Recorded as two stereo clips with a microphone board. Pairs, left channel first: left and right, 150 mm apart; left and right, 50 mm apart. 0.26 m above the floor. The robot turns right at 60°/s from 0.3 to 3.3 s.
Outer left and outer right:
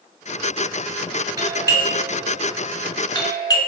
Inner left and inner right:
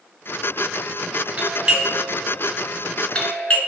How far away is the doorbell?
About 1.6 m.